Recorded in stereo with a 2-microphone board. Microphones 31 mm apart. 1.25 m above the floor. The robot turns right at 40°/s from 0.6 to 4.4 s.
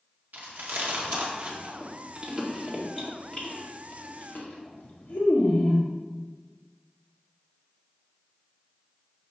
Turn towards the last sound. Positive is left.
turn(degrees=65)  # may be behind; listen again after turning